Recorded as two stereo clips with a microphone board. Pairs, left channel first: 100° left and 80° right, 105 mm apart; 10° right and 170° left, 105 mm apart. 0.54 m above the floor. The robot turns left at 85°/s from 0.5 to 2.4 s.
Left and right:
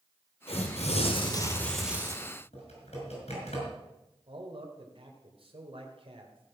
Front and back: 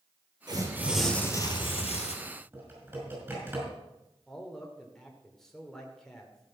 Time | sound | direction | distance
0.5 | tearing paper | 120° left | 2.5 m
2.5 | typing on a keyboard | 100° left | 5.5 m
4.3 | a man speaking | 95° right | 2.0 m